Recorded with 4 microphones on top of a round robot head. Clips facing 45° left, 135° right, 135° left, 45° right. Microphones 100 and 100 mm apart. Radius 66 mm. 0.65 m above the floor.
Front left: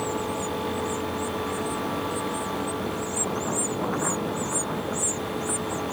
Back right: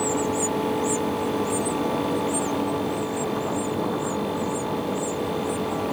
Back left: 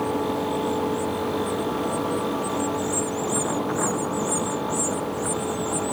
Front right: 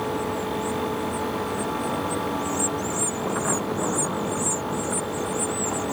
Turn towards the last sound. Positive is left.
No sound to turn to.